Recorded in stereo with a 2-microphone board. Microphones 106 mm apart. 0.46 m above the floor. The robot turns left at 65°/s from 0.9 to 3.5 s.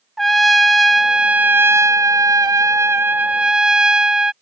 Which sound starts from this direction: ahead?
A trumpet, at 0.2 s.